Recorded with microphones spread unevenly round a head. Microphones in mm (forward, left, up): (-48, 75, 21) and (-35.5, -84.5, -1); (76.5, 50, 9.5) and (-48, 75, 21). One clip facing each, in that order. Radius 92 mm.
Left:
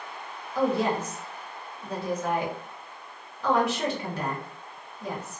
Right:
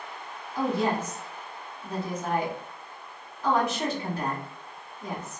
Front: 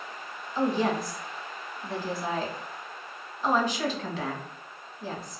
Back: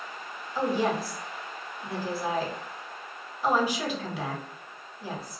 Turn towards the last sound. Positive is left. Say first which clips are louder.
# left 2 dB, front 1 dB
turn(degrees=90)